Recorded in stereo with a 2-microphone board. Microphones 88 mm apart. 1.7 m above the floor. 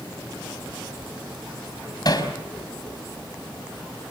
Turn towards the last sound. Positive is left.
turn(degrees=50)  # may be behind; listen again after turning